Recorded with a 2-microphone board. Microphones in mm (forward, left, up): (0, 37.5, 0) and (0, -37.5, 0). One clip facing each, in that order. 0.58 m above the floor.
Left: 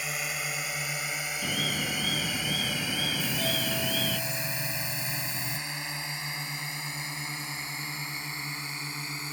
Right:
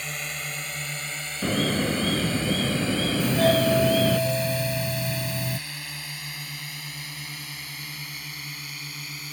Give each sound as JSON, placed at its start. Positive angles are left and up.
{"t": 0.0, "sound": "a drone", "side_deg": 5}
{"t": 1.4, "sound": "an alarm", "side_deg": -45}
{"t": 3.2, "sound": "a doorbell", "side_deg": -60}